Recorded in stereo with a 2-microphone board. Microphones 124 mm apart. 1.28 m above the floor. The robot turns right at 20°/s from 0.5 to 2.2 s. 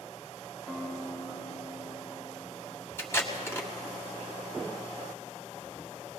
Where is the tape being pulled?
20° left (ahead or behind), 1.5 m.